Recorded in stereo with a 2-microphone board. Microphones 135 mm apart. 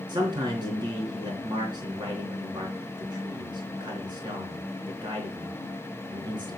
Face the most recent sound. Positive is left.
turn(degrees=-35)  # may be behind; listen again after turning